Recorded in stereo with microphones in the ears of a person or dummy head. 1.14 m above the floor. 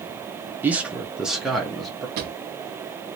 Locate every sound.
0.6 s a man speaking: 10° right (ahead or behind), 0.6 m; by 2.1 s centre (ahead or behind), 1.1 m
2.2 s a drawer: 55° right (ahead or behind), 0.6 m